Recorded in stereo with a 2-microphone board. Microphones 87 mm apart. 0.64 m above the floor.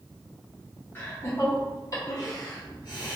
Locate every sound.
0.9 s laughter: 25° left (ahead or behind), 1.2 m; by 3.2 s 50° left (ahead or behind), 1.0 m